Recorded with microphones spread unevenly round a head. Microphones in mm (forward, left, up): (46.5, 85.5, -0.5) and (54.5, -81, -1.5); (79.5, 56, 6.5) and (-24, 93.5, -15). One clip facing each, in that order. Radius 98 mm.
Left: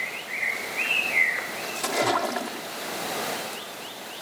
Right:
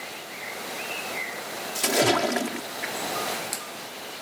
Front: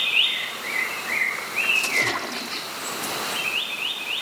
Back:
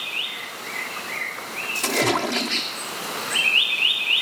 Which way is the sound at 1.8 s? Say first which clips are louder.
Right 3 dB, back 8 dB; 155° right.